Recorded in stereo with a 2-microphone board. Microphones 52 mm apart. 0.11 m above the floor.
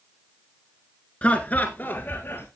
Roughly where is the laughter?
Left.